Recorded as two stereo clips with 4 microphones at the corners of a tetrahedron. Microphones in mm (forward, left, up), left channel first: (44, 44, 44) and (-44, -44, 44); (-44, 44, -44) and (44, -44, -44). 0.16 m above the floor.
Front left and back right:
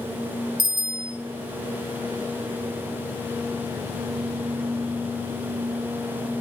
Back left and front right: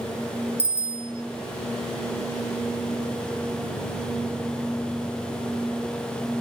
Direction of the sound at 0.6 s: 85° right.